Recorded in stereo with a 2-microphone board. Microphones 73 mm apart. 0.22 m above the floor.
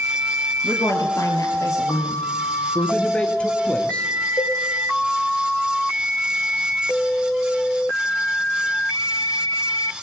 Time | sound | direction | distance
0.6 | a woman speaking | 50° left (ahead or behind) | 4.5 m
2.8 | a man speaking | 15° left (ahead or behind) | 3 m
4.4 | a cowbell | 45° left (ahead or behind) | 5 m